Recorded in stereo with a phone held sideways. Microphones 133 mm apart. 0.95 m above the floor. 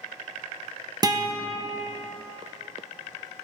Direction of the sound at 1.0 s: 30° right (ahead or behind).